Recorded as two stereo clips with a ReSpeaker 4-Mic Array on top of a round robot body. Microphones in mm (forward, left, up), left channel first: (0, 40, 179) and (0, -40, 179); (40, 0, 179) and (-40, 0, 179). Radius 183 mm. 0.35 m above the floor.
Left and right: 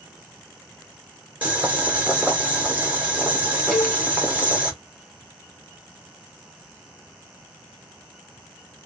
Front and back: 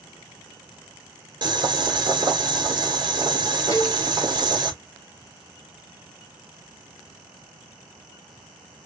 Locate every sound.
1.4 s boiling: 160° right, 2 m
3.7 s a cowbell: 5° left, 1.6 m